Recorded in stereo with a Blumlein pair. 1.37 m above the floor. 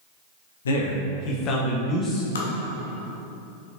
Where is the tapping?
65° left, 1.0 m.